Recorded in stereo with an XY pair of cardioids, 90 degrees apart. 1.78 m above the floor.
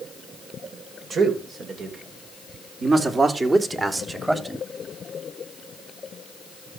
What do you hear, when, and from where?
1.1 s a man speaking: 65° right, 6 m; by 4.7 s 15° right, 3.5 m